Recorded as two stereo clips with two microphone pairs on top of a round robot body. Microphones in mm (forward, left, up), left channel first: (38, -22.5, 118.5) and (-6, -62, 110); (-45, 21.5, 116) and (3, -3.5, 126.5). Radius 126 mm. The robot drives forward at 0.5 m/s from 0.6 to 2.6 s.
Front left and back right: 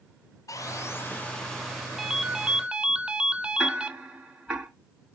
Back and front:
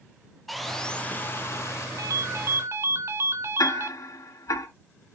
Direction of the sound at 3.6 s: 140° left.